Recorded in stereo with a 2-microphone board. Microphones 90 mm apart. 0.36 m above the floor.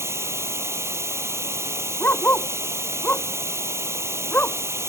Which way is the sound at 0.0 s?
30° right (ahead or behind).